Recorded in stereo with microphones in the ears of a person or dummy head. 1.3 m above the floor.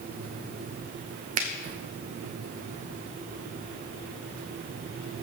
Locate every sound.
1.4 s a finger snap: 45° right (ahead or behind), 0.8 m